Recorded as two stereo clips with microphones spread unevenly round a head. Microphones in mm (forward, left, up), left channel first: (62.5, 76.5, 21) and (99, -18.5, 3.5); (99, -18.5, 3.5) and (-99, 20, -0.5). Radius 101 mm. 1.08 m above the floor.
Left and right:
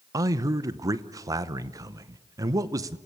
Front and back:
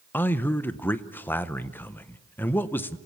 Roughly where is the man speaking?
Right.